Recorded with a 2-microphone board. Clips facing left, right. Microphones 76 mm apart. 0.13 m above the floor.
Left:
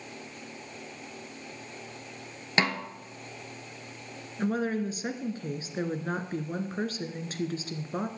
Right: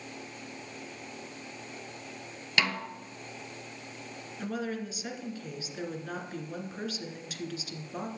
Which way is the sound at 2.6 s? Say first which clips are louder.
Left 3 dB; 35° left (ahead or behind).